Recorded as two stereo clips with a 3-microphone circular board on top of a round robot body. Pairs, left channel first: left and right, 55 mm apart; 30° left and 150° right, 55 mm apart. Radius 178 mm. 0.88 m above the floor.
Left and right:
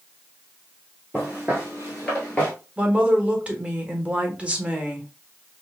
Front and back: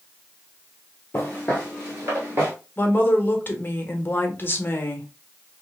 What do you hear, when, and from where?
1.1 s footsteps: 25° right, 1.4 m; by 2.5 s 165° left, 1.2 m
2.8 s a woman speaking: 20° right, 1.3 m